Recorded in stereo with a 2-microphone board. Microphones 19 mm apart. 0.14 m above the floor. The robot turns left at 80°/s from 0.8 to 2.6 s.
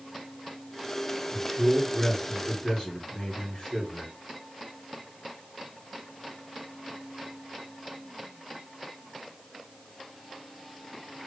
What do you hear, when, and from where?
1.3 s a man speaking: 150° right, 2 m; by 4.1 s 105° left, 2 m